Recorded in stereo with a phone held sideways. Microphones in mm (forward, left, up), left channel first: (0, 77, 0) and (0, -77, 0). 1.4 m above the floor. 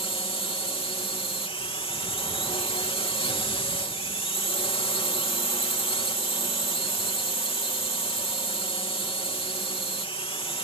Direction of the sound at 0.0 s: 35° left (ahead or behind).